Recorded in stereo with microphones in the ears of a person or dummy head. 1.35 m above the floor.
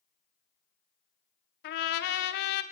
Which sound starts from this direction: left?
A trumpet, at 1.6 s.